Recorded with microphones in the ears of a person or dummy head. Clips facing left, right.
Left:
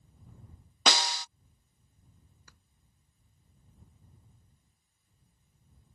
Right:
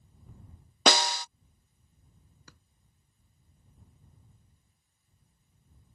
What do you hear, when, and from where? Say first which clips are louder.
0.9 s a snare drum: right 5 dB; 50° right (ahead or behind)
2.5 s a drawer: right 9 dB; 65° right (ahead or behind)